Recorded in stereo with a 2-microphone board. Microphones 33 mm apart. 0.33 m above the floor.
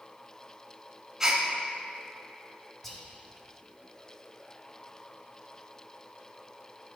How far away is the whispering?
About 1.6 m.